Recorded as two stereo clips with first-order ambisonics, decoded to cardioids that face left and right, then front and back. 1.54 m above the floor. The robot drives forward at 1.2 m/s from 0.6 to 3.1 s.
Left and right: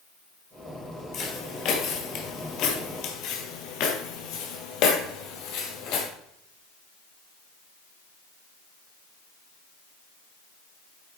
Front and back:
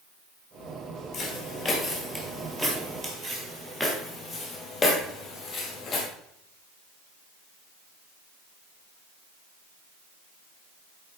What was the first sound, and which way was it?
Footsteps, 45° left.